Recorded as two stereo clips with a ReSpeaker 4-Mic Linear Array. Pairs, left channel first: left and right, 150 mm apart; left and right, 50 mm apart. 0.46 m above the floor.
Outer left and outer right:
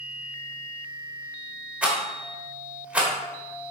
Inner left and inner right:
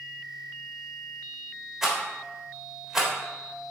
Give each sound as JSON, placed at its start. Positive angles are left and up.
{"t": 1.8, "sound": "a rattle", "side_deg": -10, "distance_m": 1.6}